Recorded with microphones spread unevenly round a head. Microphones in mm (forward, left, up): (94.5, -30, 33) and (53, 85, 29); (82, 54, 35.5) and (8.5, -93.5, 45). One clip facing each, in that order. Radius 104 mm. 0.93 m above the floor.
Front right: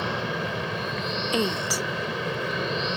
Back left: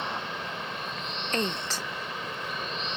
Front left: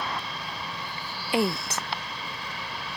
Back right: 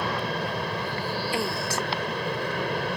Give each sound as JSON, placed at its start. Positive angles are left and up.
{"t": 0.0, "sound": "an aircraft", "azimuth_deg": -80}
{"t": 1.3, "sound": "a woman speaking", "azimuth_deg": 10}